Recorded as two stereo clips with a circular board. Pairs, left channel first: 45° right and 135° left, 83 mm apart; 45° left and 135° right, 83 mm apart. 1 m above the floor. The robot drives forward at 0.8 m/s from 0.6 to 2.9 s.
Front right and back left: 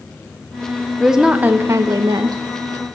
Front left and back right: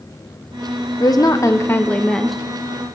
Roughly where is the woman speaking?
Ahead left.